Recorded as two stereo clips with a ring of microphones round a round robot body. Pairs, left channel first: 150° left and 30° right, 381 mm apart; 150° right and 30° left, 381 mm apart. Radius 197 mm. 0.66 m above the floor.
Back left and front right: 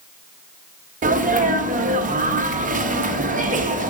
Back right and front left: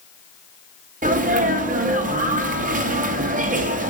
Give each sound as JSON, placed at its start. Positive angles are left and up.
{"t": 1.0, "sound": "a sneeze", "azimuth_deg": 0, "distance_m": 0.6}